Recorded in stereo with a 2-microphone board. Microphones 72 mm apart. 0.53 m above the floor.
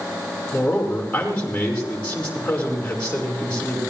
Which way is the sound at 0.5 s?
20° left (ahead or behind).